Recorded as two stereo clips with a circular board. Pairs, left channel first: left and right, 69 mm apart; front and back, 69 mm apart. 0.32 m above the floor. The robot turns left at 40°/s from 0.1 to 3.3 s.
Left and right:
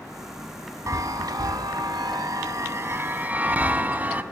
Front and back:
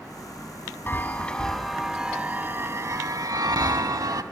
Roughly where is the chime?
Ahead right.